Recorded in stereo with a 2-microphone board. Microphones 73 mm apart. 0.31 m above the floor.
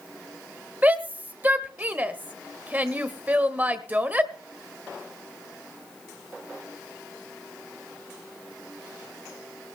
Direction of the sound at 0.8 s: 20° right (ahead or behind).